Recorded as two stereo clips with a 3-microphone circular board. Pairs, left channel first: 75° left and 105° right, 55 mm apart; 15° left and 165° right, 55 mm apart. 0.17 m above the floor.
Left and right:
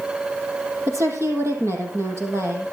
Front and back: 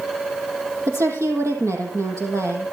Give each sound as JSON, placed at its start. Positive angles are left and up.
{"t": 0.9, "sound": "a woman speaking", "azimuth_deg": -140, "distance_m": 5.0}